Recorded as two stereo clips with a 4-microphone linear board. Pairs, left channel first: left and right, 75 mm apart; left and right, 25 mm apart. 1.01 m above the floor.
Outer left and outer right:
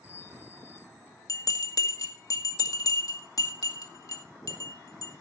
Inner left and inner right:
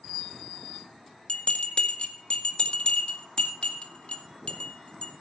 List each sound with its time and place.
1.3 s a bell: 50° left (ahead or behind), 2 m